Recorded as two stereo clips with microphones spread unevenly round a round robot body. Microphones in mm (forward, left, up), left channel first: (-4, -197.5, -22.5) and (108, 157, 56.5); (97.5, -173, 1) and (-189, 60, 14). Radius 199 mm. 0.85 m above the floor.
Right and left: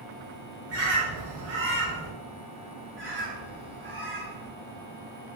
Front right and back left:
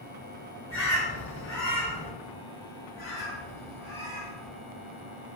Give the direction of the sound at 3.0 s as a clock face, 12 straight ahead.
11 o'clock.